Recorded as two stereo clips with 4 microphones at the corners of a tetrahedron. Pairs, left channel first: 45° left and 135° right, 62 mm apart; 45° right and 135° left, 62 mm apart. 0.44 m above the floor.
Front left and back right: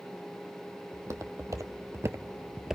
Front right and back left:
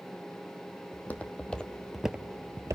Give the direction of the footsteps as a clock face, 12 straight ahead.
4 o'clock.